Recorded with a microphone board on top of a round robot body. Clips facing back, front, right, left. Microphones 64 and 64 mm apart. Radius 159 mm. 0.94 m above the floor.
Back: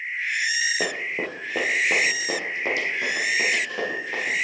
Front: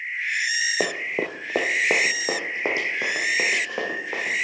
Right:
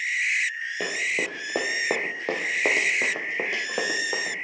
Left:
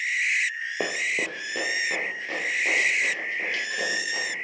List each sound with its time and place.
0.8 s running footsteps: 30° left, 1.0 m; by 4.3 s 65° right, 3.5 m